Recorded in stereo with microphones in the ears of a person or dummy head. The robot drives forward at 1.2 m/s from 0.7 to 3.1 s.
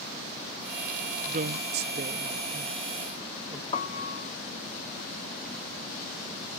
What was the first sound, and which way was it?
A woman speaking, 40° right (ahead or behind).